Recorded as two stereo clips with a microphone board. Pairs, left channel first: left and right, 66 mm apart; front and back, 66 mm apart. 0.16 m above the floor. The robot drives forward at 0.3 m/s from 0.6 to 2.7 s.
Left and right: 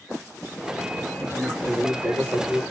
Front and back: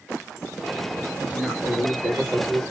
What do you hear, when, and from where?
1.2 s a woman speaking: 125° right, 1.9 m; by 2.6 s 135° right, 2 m